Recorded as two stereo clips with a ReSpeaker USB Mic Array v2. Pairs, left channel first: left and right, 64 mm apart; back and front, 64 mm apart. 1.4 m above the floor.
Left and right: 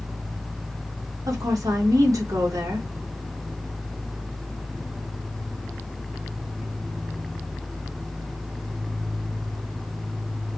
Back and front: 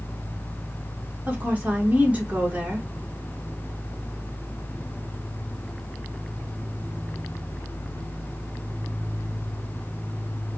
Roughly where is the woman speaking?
Right.